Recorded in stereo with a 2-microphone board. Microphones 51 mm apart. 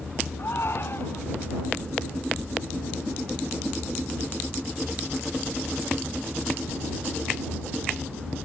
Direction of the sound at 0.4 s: 55° left (ahead or behind).